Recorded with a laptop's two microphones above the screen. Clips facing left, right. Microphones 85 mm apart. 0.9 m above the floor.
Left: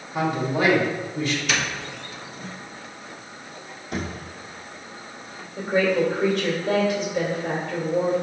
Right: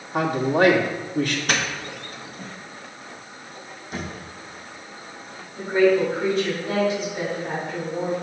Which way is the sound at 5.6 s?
55° left (ahead or behind).